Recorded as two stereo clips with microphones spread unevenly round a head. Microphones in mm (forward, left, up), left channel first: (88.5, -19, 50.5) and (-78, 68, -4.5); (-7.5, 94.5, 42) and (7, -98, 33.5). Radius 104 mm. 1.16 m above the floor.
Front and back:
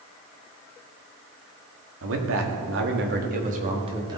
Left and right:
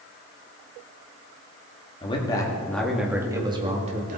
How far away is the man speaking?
About 2 m.